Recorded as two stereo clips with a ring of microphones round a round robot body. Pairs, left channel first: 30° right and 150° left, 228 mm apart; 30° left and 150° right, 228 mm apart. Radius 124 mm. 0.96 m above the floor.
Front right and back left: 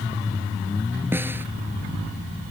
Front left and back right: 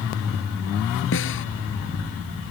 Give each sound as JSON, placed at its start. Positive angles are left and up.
{"t": 1.1, "sound": "a snare drum", "azimuth_deg": 70}